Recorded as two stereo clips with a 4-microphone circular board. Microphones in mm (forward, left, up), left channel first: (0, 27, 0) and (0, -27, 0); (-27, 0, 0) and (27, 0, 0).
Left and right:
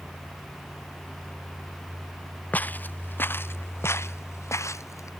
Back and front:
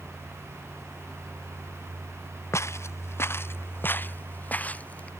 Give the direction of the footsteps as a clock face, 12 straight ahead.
7 o'clock.